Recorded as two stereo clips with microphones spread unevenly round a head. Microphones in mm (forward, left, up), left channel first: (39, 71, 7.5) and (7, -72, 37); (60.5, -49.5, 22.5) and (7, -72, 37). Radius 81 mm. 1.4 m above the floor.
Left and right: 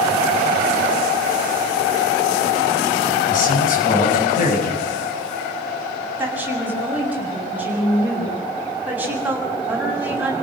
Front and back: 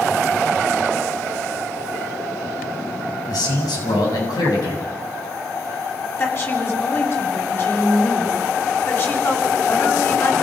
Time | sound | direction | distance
3.3 | a man speaking | 45° left | 8.5 m
6.2 | a woman speaking | 25° right | 7.5 m